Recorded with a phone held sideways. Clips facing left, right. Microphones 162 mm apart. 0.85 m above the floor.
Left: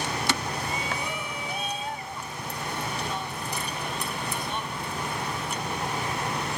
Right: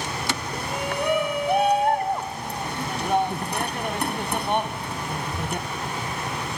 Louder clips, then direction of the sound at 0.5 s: Right 4 dB; 75° right (ahead or behind).